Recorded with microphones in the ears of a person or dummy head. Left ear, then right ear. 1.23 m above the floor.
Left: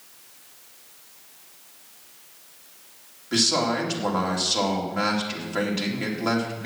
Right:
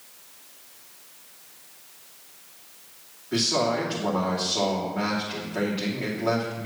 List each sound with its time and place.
3.3 s a man speaking: 80° left, 3 m